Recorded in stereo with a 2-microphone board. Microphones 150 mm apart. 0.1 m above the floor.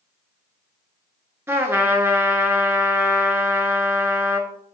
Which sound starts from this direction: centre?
A trumpet, at 1.5 s.